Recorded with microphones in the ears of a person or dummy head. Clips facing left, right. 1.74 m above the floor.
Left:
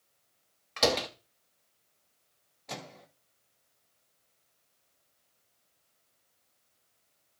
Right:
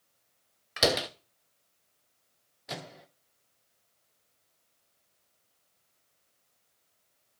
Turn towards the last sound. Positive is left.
turn(degrees=-10)  # may be behind; listen again after turning